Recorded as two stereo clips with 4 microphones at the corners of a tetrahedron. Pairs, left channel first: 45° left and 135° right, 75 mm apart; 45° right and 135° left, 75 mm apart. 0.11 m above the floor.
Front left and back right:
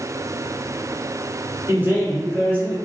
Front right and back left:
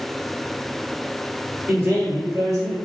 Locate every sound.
1.7 s a man speaking: straight behind, 1.3 m; by 2.8 s 160° left, 1.7 m